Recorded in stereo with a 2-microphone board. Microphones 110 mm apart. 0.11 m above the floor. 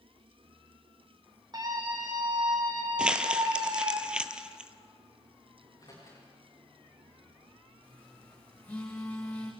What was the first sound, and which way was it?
A scream, 40° right (ahead or behind).